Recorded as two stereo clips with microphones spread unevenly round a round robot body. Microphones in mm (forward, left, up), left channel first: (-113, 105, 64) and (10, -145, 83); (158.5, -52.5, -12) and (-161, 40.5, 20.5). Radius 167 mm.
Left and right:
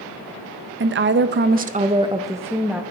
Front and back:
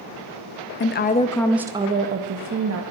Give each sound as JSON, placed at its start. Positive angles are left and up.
{"t": 0.8, "sound": "a woman speaking", "azimuth_deg": -35, "distance_m": 0.6}